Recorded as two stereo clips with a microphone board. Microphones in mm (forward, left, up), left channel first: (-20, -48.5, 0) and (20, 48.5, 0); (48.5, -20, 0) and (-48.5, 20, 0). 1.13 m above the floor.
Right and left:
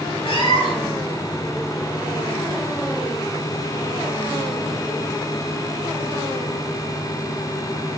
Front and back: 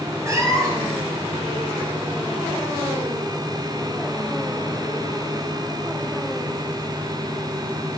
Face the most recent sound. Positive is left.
turn(degrees=-145)